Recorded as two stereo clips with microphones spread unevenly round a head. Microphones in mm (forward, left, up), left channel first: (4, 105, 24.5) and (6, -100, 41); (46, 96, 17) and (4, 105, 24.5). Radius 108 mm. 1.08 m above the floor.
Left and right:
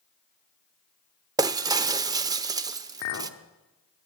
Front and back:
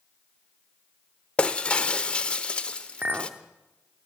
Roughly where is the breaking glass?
Ahead right.